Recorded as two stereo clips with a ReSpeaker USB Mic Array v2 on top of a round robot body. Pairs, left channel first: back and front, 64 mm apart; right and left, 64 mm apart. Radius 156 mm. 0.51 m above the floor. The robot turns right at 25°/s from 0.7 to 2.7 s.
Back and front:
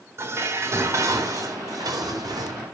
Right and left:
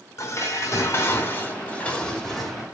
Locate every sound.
0.2 s dishes clattering: 45° right, 4 m; by 2.6 s straight ahead, 4 m